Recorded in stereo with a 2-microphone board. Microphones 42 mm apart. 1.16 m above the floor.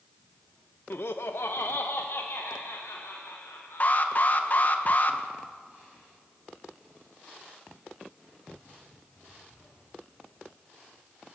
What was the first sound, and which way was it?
Laughter, 60° left (ahead or behind).